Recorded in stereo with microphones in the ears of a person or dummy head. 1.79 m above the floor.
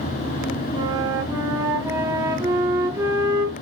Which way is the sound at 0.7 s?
20° right (ahead or behind).